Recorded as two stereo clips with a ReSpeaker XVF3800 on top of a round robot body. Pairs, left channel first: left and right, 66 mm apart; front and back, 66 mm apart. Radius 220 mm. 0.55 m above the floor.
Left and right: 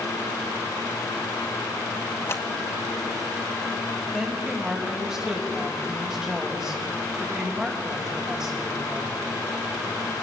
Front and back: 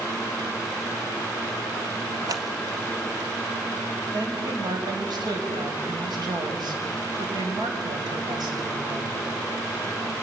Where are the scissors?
140° left, 1.6 m.